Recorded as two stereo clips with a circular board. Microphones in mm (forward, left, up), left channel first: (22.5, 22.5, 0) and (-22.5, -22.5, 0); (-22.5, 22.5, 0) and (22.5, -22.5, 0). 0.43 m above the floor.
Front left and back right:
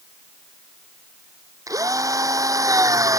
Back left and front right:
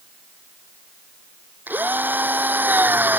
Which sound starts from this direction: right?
A drill, at 1.7 s.